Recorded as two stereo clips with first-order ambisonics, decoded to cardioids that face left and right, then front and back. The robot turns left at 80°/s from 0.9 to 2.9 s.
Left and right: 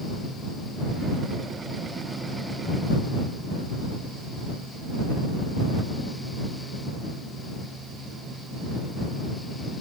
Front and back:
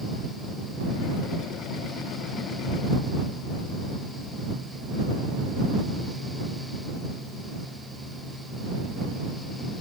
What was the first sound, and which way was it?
Only background noise.